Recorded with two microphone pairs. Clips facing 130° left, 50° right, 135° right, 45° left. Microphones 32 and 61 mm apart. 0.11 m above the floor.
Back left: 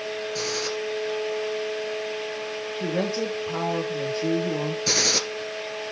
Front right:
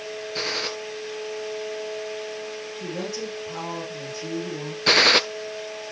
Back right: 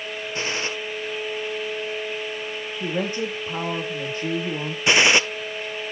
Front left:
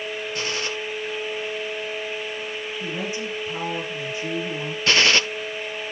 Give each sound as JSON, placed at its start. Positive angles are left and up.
{"t": 0.3, "sound": "a gunshot", "azimuth_deg": -85, "distance_m": 2.0}
{"t": 2.8, "sound": "a woman speaking", "azimuth_deg": 180, "distance_m": 5.0}
{"t": 4.9, "sound": "a gunshot", "azimuth_deg": -70, "distance_m": 0.5}